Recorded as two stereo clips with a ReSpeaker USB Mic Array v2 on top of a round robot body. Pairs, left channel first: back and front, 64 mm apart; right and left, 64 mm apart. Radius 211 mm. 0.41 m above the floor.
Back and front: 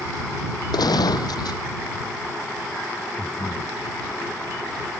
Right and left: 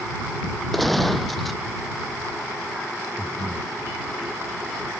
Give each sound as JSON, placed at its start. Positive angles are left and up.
{"t": 0.7, "sound": "a gunshot", "azimuth_deg": 180}
{"t": 3.2, "sound": "breathing", "azimuth_deg": 120}